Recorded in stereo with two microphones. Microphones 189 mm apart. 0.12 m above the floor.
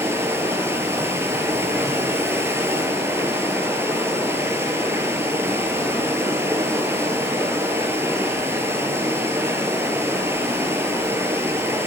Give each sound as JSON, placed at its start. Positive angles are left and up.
{"t": 0.0, "sound": "running water", "side_deg": -15, "distance_m": 0.8}